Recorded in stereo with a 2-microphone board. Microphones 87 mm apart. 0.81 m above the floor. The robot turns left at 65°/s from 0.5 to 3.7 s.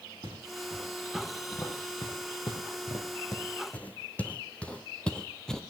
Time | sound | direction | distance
0.2 | footsteps | 50° right (ahead or behind) | 5 m